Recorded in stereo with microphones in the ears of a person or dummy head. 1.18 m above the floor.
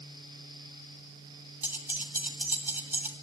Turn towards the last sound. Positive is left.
turn(degrees=-10)  # may be behind; listen again after turning